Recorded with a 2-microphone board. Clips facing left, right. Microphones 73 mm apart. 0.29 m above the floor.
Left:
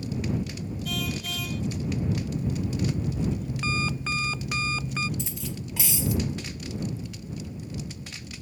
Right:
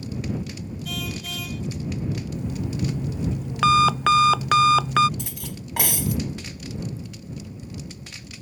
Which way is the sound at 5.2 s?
60° right (ahead or behind).